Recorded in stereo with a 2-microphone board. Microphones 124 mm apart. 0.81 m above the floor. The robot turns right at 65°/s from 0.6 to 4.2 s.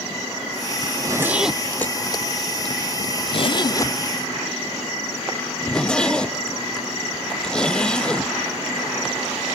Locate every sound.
0.8 s a zipper: 35° right (ahead or behind), 0.6 m; by 8.3 s 5° left (ahead or behind), 0.6 m